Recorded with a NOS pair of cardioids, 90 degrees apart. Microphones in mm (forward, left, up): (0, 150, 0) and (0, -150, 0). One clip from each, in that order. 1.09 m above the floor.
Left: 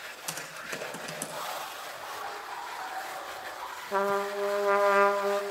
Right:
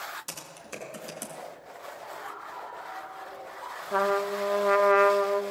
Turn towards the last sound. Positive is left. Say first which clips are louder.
# right 2 dB
turn(degrees=-10)